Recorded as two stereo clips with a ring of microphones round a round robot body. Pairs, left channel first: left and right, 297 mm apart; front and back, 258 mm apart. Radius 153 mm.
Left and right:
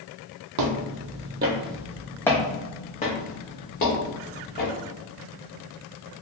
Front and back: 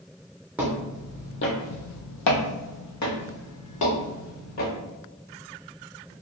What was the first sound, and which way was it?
Footsteps, 95° right.